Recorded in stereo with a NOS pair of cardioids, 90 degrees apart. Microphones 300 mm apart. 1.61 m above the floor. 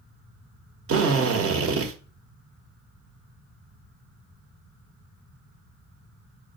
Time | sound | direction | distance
0.9 | a drill | 50° right | 0.9 m